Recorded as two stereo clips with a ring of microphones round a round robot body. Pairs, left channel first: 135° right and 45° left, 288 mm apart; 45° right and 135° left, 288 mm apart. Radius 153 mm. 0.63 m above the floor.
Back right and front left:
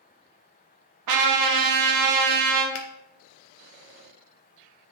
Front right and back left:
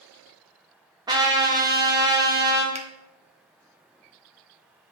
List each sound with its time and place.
1.1 s a trumpet: 60° left, 1.1 m
2.8 s a finger snap: 160° right, 0.9 m